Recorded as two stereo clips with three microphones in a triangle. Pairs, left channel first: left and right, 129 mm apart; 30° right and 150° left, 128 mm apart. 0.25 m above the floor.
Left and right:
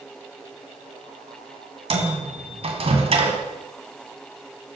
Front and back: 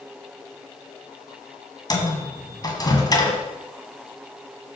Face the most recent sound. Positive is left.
turn(degrees=-80)